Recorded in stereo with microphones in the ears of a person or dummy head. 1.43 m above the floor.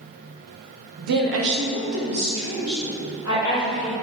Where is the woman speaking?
45° right (ahead or behind), 0.7 m; by 3.9 s 15° right (ahead or behind), 2.5 m.